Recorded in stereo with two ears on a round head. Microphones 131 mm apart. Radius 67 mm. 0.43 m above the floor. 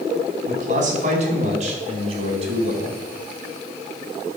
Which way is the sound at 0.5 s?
60° right (ahead or behind).